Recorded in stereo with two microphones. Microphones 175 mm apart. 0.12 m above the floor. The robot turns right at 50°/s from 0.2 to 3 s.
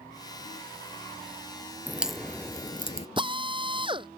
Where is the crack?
10° right (ahead or behind); by 3.1 s 35° left (ahead or behind).